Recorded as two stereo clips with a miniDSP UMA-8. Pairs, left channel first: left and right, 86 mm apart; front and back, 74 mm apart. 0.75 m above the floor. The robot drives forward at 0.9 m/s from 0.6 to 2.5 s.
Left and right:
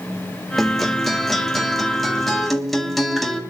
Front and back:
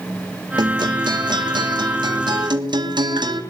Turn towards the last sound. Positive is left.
turn(degrees=180)